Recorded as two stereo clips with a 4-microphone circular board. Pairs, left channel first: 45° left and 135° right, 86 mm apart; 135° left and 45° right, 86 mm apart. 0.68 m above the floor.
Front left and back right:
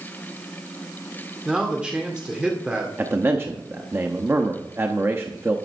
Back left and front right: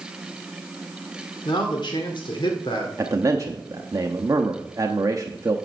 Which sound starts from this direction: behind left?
A man speaking, at 1.4 s.